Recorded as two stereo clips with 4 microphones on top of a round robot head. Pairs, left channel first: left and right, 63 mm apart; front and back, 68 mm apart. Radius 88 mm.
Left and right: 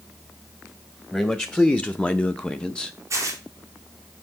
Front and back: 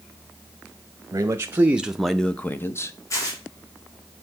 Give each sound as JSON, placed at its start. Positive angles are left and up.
{"t": 1.1, "sound": "a man speaking", "azimuth_deg": 160, "distance_m": 0.9}
{"t": 3.1, "sound": "tearing paper", "azimuth_deg": -45, "distance_m": 2.0}